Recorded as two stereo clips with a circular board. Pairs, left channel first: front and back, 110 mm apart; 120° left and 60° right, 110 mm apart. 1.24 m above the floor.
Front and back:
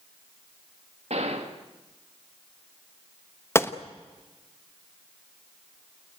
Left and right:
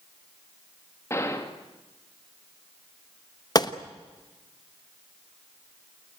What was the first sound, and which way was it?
A gunshot, 175° right.